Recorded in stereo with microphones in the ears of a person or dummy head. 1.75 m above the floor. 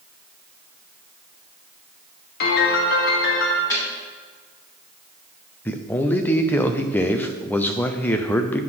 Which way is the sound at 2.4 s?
50° left (ahead or behind).